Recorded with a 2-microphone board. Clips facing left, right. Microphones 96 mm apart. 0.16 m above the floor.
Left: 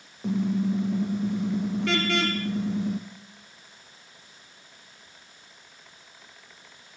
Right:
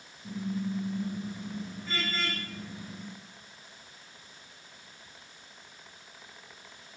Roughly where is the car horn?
Left.